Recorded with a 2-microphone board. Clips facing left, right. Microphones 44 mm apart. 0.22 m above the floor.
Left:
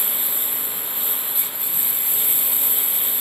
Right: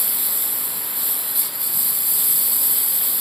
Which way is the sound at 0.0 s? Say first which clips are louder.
Left 1 dB; 35° left (ahead or behind).